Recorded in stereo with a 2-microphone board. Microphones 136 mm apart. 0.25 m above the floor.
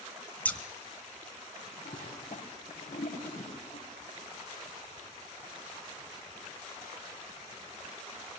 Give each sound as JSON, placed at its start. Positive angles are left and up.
{"t": 0.5, "sound": "scissors", "side_deg": 10, "distance_m": 1.1}
{"t": 1.9, "sound": "a toilet flushing", "side_deg": 80, "distance_m": 5.5}